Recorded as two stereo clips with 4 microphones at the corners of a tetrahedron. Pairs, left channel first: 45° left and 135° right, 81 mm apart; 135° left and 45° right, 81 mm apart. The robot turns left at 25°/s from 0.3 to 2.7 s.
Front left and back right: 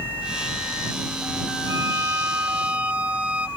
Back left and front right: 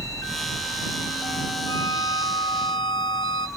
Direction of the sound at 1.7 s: Straight behind.